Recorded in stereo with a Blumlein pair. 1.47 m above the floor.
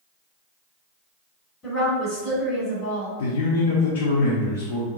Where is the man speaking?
55° left, 0.7 m.